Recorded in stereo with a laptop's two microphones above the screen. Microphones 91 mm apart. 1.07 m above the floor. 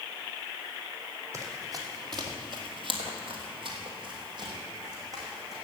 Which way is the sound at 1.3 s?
30° right (ahead or behind).